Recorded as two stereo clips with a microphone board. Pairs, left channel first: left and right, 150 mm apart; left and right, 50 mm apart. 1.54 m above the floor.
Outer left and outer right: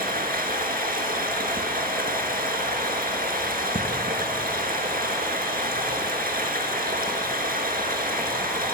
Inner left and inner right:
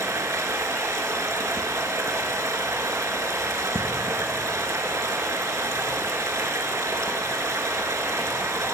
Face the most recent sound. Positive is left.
turn(degrees=-75)  # may be behind; listen again after turning